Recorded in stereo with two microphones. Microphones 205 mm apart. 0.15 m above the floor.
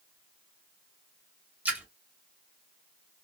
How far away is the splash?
About 1.4 m.